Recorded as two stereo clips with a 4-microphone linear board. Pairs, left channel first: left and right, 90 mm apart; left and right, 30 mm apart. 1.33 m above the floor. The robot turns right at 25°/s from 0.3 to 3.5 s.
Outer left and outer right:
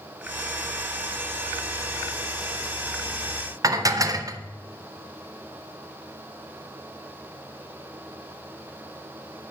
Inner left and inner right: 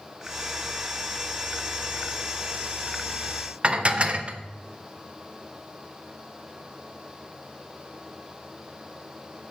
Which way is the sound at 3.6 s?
40° right (ahead or behind).